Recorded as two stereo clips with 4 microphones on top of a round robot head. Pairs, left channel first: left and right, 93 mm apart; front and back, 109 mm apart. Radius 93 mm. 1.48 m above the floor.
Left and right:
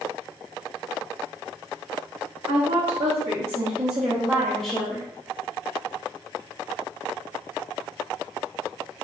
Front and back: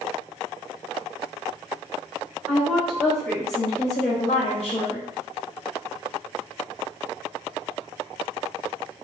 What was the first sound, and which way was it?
A woman speaking, 95° right.